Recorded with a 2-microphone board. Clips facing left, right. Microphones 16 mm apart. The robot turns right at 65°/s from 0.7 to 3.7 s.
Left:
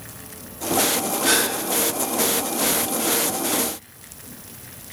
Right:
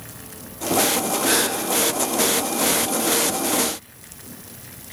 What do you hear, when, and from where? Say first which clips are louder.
1.2 s a gasp: left 1 dB; 60° left (ahead or behind), 3.5 m; by 1.5 s 65° left (ahead or behind), 3.5 m